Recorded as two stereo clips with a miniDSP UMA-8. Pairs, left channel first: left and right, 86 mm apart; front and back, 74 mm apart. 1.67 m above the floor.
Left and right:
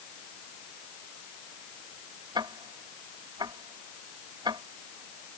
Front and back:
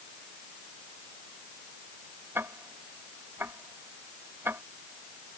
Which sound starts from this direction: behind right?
Ticking, at 2.4 s.